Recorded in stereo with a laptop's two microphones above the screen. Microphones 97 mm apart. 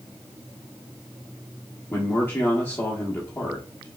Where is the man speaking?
20° left (ahead or behind), 1.0 m.